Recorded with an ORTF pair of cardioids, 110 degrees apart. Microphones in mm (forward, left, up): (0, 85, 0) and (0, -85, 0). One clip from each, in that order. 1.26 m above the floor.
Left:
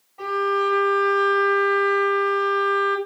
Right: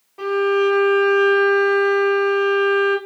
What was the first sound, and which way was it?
A violin, 40° right.